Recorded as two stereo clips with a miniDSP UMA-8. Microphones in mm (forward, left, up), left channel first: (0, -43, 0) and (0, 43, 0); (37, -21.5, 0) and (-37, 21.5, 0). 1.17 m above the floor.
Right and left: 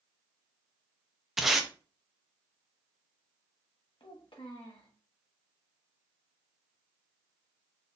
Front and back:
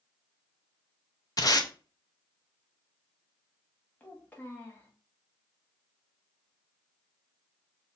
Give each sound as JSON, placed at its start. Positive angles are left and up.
{"t": 1.4, "sound": "tape being pulled", "azimuth_deg": 5, "distance_m": 0.6}
{"t": 4.0, "sound": "a child speaking", "azimuth_deg": -100, "distance_m": 1.3}